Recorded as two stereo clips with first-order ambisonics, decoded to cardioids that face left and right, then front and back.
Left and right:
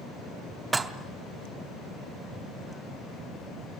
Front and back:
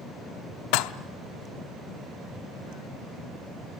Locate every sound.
0.7 s dishes clattering: 15° right, 0.7 m